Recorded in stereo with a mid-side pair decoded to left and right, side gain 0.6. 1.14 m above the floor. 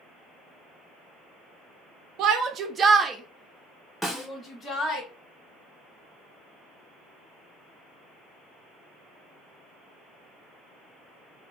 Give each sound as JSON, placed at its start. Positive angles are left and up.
{"t": 2.2, "sound": "a shout", "azimuth_deg": -65, "distance_m": 0.7}
{"t": 4.0, "sound": "a snare drum", "azimuth_deg": 10, "distance_m": 1.0}